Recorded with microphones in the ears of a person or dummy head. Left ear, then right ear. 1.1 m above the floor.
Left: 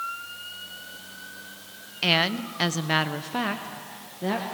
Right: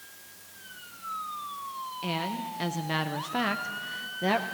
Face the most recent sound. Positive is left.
turn(degrees=-40)  # may be behind; listen again after turning